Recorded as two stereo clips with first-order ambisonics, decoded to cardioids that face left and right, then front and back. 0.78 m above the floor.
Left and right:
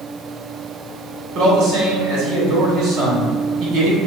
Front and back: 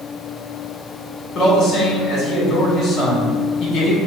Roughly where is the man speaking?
Ahead right.